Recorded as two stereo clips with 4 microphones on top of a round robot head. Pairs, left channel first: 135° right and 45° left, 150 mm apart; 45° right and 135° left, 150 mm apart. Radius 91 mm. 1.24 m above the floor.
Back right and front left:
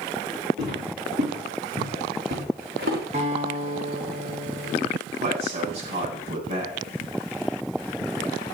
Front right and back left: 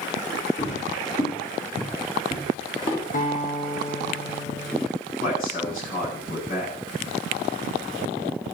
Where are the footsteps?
10° left, 6.5 m; by 3.0 s 20° left, 4 m.